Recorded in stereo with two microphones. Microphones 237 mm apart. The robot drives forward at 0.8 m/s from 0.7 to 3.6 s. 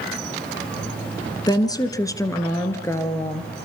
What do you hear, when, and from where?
1.5 s a woman speaking: 15° left (ahead or behind), 1.6 m; by 3.5 s 10° left (ahead or behind), 3 m